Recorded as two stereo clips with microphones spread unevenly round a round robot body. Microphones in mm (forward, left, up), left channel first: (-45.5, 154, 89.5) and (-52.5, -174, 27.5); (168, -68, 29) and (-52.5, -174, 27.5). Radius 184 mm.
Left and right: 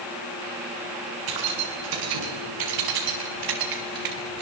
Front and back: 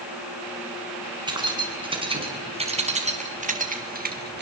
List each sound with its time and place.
1.3 s keys jangling: 80° right, 6.5 m; by 4.4 s 105° right, 3.5 m